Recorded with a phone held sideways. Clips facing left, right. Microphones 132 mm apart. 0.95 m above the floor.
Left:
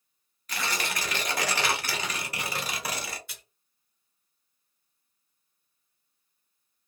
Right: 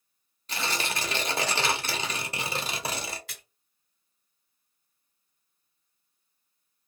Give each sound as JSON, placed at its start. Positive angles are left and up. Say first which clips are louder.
{"t": 0.5, "sound": "tearing paper", "louder": "right 1 dB", "side_deg": -25, "distance_m": 0.8}
{"t": 3.3, "sound": "a splash", "louder": "right 2 dB", "side_deg": -85, "distance_m": 2.0}